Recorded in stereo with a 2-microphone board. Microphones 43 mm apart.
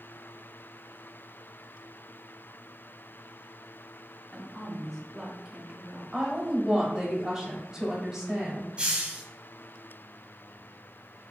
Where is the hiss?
20° right (ahead or behind), 1.0 m.